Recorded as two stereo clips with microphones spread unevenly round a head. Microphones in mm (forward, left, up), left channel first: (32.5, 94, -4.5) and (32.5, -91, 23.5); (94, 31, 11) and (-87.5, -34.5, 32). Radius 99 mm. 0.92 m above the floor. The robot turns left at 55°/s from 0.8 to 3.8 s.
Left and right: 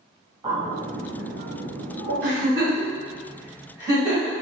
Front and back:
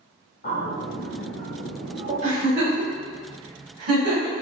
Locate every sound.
0.4 s a bird: 20° right, 1.6 m; by 2.1 s 95° right, 1.6 m
2.2 s a giggle: 105° right, 1.9 m; by 4.3 s 170° left, 1.9 m